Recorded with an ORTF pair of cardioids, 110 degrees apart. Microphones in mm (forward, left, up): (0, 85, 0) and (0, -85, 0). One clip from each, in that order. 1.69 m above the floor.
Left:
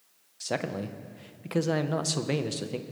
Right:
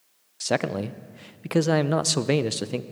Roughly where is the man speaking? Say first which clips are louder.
Right 6 dB; ahead right.